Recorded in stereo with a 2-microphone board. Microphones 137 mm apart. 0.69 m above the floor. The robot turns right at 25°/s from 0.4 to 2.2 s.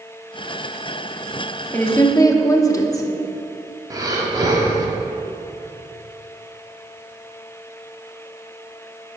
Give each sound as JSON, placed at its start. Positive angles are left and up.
{"t": 1.7, "sound": "a woman speaking", "side_deg": 15, "distance_m": 1.0}
{"t": 3.9, "sound": "breathing", "side_deg": -25, "distance_m": 1.1}